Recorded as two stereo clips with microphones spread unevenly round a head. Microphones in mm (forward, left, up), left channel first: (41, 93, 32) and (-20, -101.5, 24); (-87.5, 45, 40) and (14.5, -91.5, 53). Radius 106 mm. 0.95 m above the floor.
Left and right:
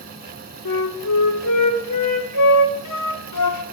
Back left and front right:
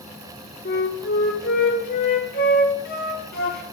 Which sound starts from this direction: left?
A flute, at 0.7 s.